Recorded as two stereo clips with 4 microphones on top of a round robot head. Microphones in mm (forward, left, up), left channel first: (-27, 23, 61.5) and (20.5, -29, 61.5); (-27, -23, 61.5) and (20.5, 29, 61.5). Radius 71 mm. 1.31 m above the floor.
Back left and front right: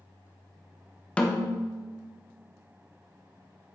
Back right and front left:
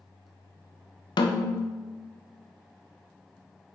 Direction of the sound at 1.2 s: 150° right.